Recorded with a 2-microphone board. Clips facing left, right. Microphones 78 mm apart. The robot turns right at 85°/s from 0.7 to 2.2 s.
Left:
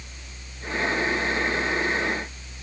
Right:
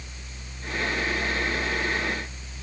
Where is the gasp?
No gasp in this recording.